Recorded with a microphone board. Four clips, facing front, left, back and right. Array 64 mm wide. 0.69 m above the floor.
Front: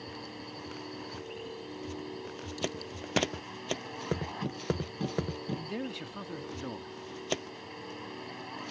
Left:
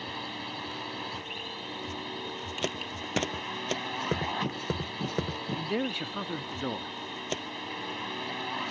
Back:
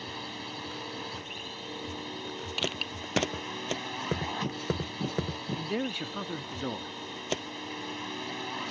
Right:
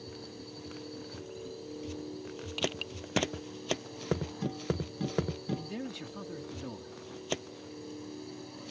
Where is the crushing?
Straight behind.